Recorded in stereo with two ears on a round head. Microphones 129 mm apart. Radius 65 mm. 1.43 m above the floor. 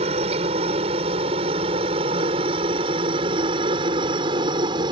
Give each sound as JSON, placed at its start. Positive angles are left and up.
{"t": 0.0, "sound": "a helicopter", "side_deg": -40}